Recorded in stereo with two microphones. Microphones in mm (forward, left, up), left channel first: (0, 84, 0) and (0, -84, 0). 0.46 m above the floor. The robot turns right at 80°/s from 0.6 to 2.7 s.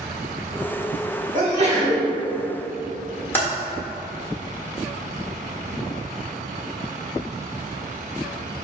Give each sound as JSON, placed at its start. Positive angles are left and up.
{"t": 1.3, "sound": "a sneeze", "azimuth_deg": -95, "distance_m": 1.7}
{"t": 3.3, "sound": "typing on a keyboard", "side_deg": 10, "distance_m": 1.3}